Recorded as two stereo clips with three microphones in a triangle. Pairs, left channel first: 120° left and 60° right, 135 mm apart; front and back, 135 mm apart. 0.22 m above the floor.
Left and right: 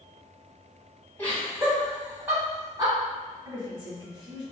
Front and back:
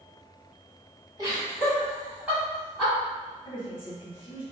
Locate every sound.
1.2 s laughter: straight behind, 1.4 m; by 2.9 s 90° right, 1.5 m
3.5 s a woman speaking: 15° right, 1.6 m